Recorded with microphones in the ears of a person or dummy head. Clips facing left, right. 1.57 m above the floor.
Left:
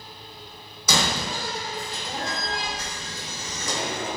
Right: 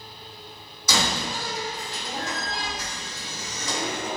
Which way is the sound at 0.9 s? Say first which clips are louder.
Left 1 dB; 65° left (ahead or behind).